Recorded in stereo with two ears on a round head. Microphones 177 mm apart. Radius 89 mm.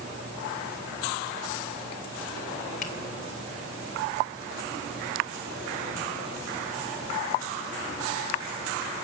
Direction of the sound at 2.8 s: 40° left (ahead or behind).